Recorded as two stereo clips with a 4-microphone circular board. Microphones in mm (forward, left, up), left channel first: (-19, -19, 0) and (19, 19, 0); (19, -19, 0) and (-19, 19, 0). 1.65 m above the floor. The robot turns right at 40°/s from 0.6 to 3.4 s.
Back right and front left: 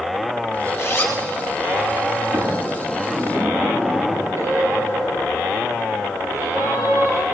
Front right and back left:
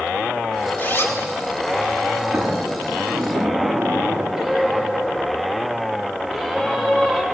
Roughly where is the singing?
Ahead left.